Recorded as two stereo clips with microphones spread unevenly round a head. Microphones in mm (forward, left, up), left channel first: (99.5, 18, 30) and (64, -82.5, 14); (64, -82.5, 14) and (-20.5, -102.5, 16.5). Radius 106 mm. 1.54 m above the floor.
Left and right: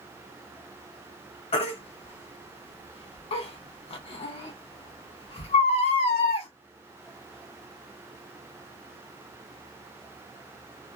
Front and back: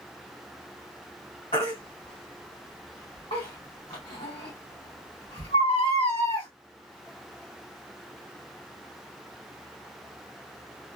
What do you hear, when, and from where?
1.5 s a baby crying: 65° left, 1.0 m